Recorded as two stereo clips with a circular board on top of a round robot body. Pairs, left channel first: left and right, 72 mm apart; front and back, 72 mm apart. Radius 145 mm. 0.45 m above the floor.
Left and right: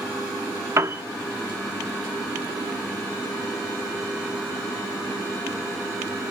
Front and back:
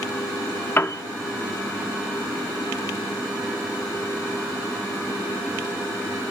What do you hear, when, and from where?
0.8 s a piano: 50° right, 0.7 m